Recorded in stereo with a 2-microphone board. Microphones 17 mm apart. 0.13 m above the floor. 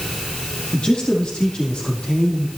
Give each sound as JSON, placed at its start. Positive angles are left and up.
{"t": 0.7, "sound": "a woman speaking", "side_deg": 70, "distance_m": 4.0}